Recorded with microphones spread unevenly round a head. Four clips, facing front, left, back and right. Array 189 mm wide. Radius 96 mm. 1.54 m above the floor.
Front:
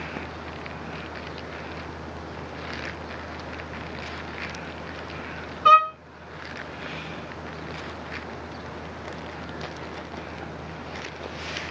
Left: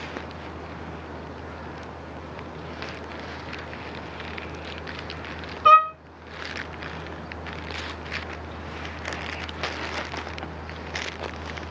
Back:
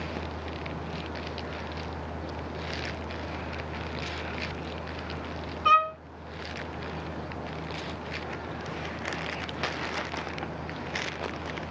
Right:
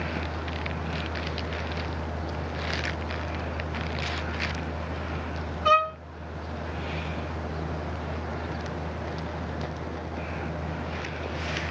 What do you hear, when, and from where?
5.7 s a violin: 50° left, 2.5 m